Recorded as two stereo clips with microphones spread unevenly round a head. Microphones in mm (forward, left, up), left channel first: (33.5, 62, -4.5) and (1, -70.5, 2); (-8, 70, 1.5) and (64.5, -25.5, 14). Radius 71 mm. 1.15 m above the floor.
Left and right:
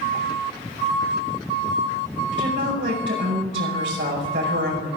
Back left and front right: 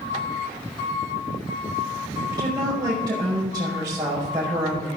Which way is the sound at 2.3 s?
120° right.